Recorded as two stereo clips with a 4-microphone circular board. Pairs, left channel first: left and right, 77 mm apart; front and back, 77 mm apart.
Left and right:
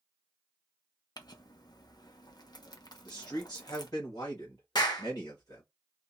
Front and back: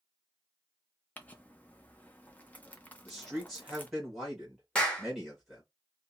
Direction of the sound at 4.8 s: 75° left.